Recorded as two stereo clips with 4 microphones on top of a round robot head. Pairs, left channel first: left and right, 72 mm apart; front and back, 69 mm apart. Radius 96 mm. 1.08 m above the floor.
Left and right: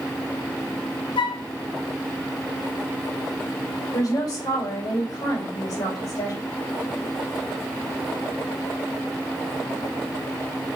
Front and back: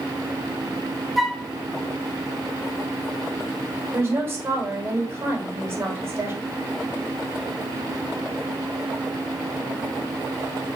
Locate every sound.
1.2 s a flute: 95° left, 0.9 m
3.9 s a woman speaking: 125° left, 3 m